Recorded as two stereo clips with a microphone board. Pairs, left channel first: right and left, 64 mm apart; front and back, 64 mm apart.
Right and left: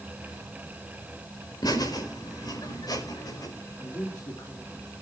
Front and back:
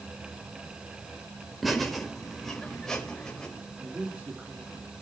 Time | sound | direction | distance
1.6 | laughter | 90° right | 4 m
3.8 | a man speaking | 110° right | 3 m